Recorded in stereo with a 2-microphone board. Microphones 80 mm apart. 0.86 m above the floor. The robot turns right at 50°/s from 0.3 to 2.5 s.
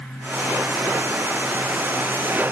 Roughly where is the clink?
No clink in this recording.